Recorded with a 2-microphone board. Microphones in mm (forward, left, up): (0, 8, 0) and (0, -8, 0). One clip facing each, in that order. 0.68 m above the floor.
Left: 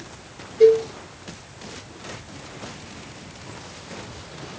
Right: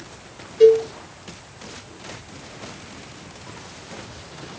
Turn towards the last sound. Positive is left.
turn(degrees=-25)  # may be behind; listen again after turning